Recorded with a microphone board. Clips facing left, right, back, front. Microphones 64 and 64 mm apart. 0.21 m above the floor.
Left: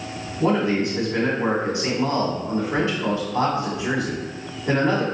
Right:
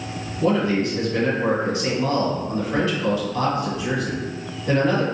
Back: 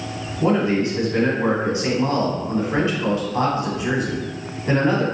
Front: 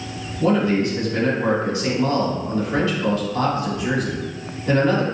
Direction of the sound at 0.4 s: 135° left.